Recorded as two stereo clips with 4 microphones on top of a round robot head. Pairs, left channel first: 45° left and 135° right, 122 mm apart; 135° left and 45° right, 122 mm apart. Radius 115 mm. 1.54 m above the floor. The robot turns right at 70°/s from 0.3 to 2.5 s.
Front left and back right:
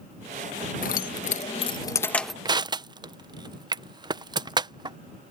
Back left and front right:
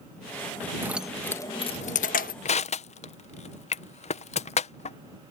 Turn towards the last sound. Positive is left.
turn(degrees=170)